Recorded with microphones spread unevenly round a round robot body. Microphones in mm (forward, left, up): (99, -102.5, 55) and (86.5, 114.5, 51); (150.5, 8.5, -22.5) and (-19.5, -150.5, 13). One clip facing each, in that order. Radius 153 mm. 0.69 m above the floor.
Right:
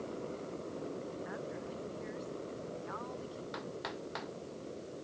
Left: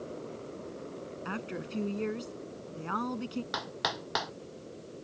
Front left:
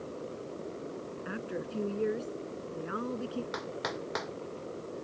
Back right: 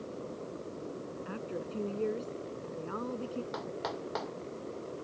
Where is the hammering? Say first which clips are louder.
Left 3 dB, front left 1 dB; 120° left.